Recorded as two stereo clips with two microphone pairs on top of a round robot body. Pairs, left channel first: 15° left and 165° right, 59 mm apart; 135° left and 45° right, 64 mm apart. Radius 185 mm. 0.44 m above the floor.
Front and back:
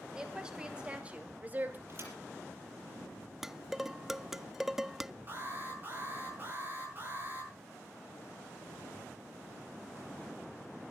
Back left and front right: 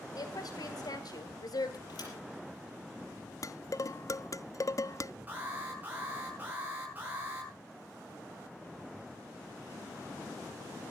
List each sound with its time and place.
0.1 s a woman speaking: 120° left, 3.5 m; by 1.8 s 145° left, 2.5 m
1.9 s a thud: 150° left, 5.5 m
3.4 s dishes clattering: 115° left, 0.6 m
5.3 s an alarm: 105° right, 9.5 m